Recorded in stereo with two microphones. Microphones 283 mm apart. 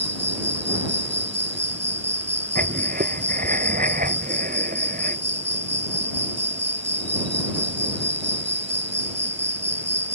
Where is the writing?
35° right (ahead or behind).